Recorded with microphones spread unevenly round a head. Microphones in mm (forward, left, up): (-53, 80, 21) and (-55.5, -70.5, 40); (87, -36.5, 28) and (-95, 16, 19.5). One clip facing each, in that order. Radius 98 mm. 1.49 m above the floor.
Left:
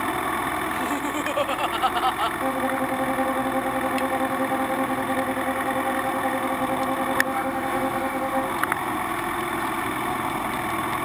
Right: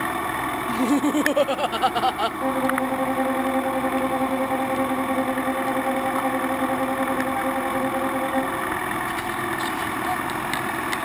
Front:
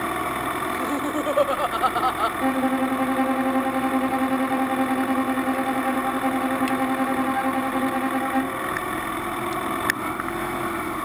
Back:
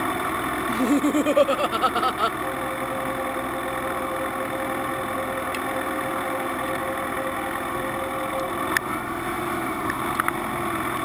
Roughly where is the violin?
Ahead.